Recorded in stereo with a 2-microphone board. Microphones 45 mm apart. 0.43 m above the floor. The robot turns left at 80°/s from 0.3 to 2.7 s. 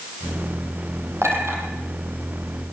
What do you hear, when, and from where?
1.2 s a clink: 85° right, 8 m; by 1.6 s 55° right (ahead or behind), 8 m